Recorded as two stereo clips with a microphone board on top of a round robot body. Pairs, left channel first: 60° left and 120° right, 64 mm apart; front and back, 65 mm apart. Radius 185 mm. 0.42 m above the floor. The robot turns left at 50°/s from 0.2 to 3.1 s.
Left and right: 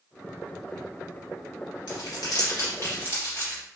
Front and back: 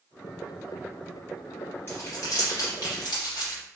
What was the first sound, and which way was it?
Crumpling, 60° left.